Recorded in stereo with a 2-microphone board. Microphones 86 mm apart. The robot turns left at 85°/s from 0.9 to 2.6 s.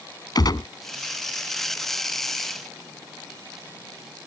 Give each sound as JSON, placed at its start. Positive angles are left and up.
{"t": 0.3, "sound": "a gunshot", "side_deg": 60}